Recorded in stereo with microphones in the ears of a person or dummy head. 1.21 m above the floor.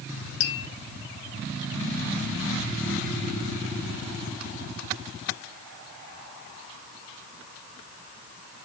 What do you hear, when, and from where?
0.4 s tapping: 65° left (ahead or behind), 3 m